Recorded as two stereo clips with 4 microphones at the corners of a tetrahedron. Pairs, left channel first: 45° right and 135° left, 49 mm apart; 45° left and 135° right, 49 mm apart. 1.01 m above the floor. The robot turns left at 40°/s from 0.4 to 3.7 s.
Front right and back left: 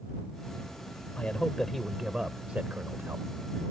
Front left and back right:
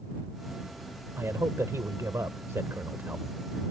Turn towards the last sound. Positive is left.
turn(degrees=150)